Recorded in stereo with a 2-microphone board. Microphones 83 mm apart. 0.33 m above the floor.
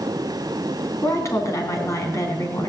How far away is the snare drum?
I don't hear a snare drum.